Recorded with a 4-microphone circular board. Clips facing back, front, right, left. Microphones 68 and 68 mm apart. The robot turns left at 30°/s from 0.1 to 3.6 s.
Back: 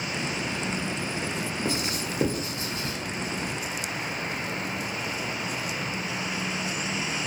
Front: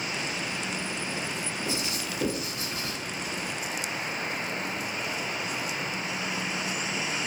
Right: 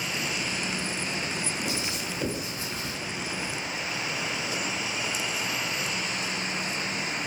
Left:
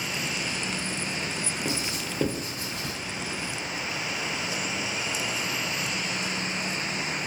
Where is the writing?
150° left, 0.7 m; by 3.0 s 110° left, 0.7 m.